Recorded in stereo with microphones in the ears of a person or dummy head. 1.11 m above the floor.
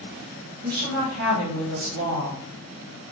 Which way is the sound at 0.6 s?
75° right (ahead or behind).